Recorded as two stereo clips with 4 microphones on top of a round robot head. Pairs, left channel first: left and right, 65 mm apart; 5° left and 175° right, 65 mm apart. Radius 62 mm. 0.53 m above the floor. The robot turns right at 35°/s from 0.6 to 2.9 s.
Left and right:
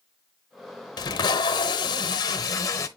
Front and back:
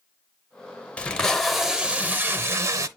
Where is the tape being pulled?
75° left, 0.8 m; by 2.9 s 145° left, 0.8 m.